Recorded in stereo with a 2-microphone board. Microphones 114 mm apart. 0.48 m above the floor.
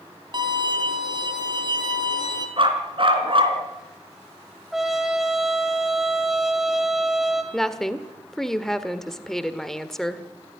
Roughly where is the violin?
Right.